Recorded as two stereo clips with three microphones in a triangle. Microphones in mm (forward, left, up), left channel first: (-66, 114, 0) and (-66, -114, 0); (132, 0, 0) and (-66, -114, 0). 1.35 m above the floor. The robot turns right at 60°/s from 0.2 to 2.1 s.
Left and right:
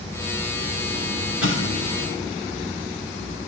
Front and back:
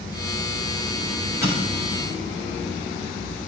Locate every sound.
1.4 s an explosion: 70° left, 6 m; by 2.1 s 110° left, 6 m